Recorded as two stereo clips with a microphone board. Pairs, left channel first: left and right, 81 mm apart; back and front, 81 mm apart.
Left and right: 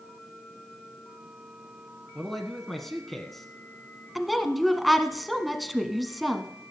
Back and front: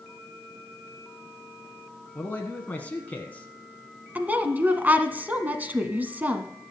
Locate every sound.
2.1 s a man speaking: 175° left, 1.0 m
4.2 s a woman speaking: straight ahead, 1.0 m